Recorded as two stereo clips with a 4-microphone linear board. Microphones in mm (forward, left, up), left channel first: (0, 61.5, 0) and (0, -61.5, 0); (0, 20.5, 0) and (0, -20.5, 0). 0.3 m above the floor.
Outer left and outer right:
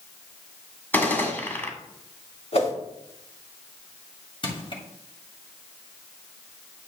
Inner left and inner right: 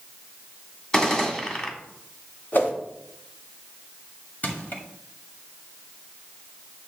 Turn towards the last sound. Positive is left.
turn(degrees=45)  # may be behind; listen again after turning